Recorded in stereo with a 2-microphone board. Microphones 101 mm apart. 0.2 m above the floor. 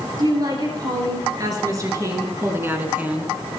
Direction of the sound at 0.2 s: 40° right (ahead or behind).